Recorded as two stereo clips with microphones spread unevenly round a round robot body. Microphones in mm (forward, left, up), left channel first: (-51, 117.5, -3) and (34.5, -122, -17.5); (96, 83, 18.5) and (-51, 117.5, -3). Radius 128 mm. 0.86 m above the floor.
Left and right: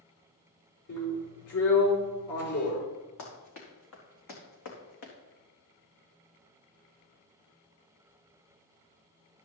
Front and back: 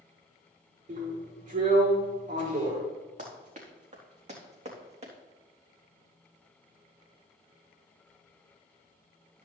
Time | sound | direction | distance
0.9 | a drill | 130° left | 4.5 m
3.2 | running footsteps | 130° left | 4.5 m